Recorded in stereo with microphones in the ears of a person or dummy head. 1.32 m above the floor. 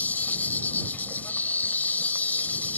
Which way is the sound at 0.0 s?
10° left (ahead or behind).